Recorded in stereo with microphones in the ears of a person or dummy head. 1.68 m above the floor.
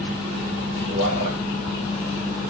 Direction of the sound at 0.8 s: 85° right.